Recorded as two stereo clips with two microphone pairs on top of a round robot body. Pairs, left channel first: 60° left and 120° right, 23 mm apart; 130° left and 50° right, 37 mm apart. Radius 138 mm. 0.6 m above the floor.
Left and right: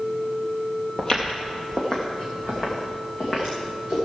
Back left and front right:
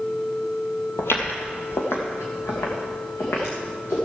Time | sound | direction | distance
1.0 | footsteps | 115° left | 0.9 m